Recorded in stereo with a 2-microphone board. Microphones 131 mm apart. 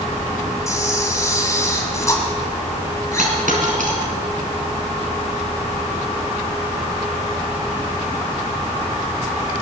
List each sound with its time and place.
0.7 s a camera shutter: 25° left (ahead or behind), 2 m
3.2 s a dropped coin: 85° right, 3 m